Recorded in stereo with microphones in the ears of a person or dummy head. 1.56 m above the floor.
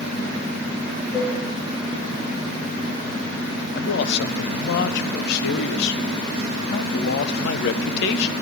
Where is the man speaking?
55° left (ahead or behind), 0.8 m.